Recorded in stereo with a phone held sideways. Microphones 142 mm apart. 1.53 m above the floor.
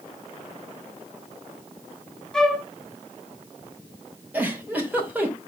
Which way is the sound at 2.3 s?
5° left (ahead or behind).